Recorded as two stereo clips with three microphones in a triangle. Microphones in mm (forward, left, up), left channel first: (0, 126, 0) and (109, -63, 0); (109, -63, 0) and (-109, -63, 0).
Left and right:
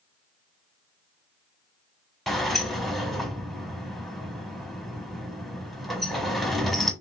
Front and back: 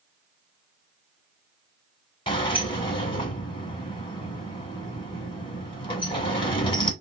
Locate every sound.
2.3 s a sliding door: 30° left, 1.0 m